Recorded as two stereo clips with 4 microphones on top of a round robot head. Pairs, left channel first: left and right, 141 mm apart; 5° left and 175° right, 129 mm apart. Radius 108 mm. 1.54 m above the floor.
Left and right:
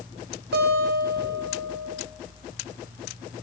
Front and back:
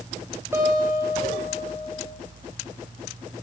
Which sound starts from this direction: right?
A guitar, at 0.5 s.